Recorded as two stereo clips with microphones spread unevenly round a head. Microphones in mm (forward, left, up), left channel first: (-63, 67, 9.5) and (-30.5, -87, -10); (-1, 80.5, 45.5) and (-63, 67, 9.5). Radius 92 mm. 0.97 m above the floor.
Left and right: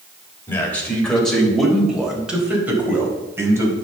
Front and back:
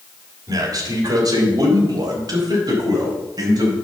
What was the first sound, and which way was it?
A man speaking, straight behind.